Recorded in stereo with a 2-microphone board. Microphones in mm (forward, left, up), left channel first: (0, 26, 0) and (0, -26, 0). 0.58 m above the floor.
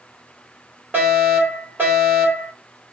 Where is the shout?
No shout in this recording.